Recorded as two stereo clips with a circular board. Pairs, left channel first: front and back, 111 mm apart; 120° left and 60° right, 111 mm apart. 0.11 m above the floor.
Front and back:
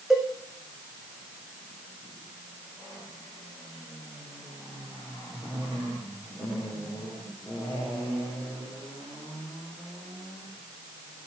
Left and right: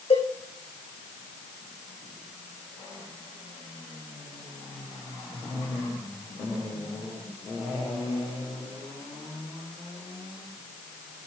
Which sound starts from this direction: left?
A cowbell, at 0.1 s.